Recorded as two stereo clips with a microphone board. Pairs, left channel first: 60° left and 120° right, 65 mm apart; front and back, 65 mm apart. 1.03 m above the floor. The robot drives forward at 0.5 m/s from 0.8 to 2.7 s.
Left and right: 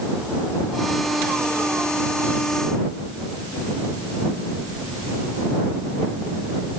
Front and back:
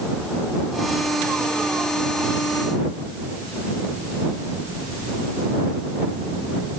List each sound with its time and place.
Only background noise.